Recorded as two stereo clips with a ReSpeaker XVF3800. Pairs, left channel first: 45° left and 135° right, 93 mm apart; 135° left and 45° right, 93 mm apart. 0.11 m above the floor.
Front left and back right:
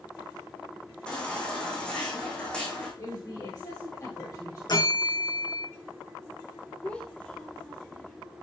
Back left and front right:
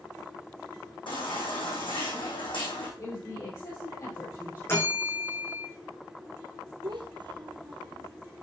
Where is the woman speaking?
90° left, 4.5 m.